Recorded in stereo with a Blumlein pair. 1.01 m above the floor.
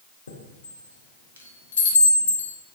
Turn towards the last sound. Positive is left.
turn(degrees=65)